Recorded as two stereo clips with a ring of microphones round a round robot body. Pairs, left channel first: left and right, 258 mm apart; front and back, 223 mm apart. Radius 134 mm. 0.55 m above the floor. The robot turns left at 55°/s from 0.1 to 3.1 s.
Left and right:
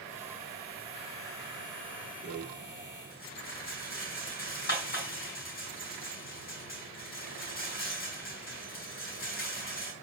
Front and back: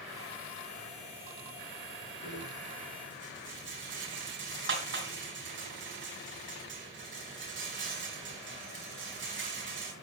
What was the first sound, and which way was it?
A rattle, 165° right.